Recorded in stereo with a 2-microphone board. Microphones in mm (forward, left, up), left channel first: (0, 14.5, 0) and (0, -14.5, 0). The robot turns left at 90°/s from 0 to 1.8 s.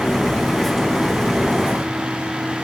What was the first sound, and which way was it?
Only background noise.